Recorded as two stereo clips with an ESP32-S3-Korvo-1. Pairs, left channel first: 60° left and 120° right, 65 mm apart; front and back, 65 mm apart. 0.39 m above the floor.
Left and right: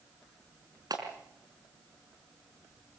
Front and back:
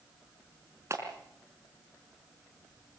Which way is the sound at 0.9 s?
135° right.